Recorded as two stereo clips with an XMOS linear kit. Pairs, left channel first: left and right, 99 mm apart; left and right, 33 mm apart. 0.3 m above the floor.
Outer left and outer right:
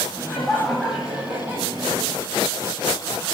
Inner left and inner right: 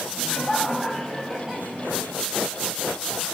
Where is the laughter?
5° left (ahead or behind), 2 m; by 2.1 s 30° right (ahead or behind), 2 m.